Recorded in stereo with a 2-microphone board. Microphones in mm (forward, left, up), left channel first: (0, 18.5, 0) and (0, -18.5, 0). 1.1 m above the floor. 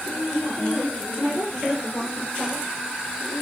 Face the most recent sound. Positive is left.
turn(degrees=40)  # may be behind; listen again after turning